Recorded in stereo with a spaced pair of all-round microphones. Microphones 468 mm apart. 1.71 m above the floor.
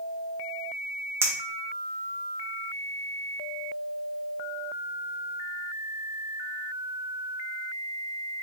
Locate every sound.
1.2 s a clink: 5° right (ahead or behind), 0.8 m